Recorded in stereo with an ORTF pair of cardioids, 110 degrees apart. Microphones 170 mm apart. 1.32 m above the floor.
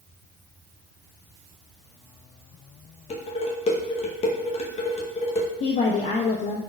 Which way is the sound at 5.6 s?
50° left.